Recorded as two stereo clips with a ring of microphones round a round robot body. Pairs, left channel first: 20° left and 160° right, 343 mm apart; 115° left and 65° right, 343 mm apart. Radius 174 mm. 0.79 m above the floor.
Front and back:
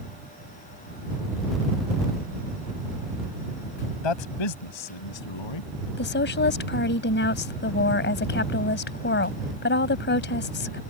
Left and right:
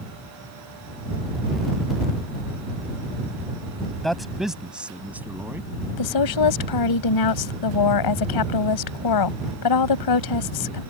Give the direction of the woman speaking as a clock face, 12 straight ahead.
9 o'clock.